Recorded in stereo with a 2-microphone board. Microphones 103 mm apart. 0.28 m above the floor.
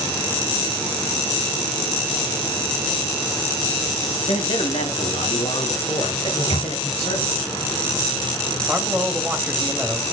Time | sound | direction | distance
4.3 | a man speaking | 70° left (ahead or behind) | 3.5 m
6.3 | a microwave | 75° left (ahead or behind) | 4.5 m
8.7 | a man speaking | 10° right (ahead or behind) | 1.6 m